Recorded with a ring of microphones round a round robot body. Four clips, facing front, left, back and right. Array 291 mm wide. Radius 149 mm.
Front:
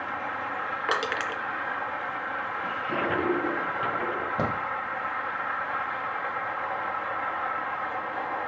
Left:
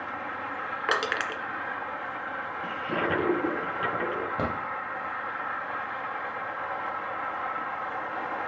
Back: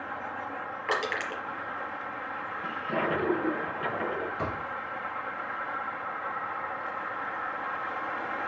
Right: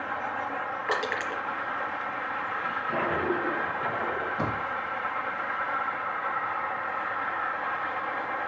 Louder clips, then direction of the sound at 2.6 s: Left 1 dB, even; 60° left.